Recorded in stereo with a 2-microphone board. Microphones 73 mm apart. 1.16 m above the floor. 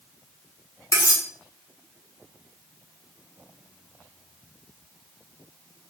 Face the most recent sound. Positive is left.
turn(degrees=45)  # may be behind; listen again after turning